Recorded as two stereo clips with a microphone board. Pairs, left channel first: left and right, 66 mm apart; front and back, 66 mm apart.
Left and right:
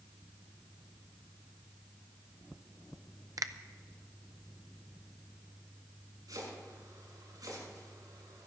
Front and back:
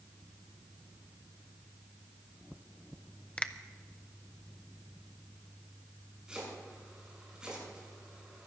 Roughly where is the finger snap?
Right.